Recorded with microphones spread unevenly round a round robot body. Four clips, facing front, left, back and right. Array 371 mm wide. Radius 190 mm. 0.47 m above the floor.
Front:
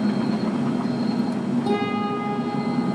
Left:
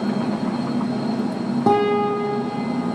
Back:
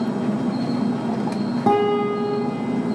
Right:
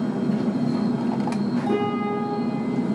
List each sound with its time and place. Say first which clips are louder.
1.7 s a guitar: left 10 dB, back 5 dB; 115° left, 8.5 m